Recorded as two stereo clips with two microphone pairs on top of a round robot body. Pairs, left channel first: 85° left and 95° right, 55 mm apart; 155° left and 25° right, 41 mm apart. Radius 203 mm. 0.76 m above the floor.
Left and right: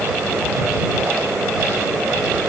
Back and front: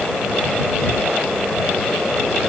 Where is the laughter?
No laughter in this recording.